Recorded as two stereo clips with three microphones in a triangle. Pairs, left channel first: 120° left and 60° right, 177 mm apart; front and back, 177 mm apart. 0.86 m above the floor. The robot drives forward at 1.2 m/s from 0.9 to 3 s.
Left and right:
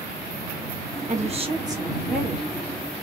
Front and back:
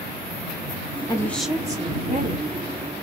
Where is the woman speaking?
60° right, 1.1 m; by 2.5 s 155° right, 1.7 m.